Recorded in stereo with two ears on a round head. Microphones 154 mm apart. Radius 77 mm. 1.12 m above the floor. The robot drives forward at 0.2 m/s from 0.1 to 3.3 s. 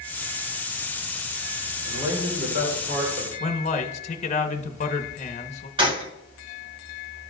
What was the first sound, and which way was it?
A man speaking, 80° right.